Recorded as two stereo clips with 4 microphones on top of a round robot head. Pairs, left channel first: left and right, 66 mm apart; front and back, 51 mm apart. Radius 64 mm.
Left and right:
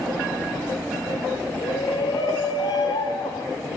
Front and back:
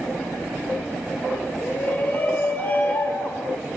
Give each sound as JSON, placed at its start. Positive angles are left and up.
{"t": 1.6, "sound": "a shout", "azimuth_deg": 55, "distance_m": 3.0}